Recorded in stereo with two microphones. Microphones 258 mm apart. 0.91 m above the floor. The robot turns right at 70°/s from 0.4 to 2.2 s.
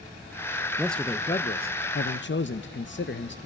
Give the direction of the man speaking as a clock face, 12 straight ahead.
12 o'clock.